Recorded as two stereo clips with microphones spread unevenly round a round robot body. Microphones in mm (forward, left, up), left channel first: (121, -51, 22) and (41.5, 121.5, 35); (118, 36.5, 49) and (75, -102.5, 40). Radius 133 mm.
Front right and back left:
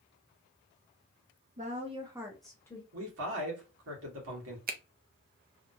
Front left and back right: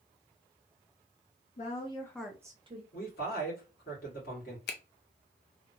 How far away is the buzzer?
I don't hear a buzzer.